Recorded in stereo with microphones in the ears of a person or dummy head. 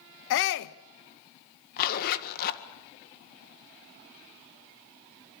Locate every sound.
0.3 s a shout: 65° left (ahead or behind), 0.9 m
1.8 s a zipper: 45° left (ahead or behind), 1.8 m